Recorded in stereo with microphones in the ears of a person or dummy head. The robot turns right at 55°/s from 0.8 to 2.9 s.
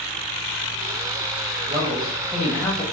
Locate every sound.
1.7 s a man speaking: 35° right, 1.1 m; by 2.8 s 25° left, 1.1 m